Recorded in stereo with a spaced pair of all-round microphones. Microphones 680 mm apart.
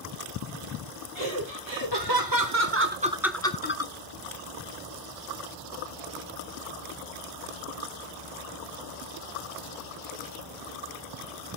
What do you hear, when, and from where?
1.1 s laughter: 45° right (ahead or behind), 1.6 m; by 3.9 s 30° left (ahead or behind), 0.7 m